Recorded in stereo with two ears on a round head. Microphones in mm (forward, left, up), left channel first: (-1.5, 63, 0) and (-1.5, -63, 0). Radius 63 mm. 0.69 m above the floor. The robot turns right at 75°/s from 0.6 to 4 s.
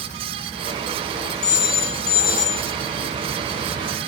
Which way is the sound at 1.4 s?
50° left (ahead or behind).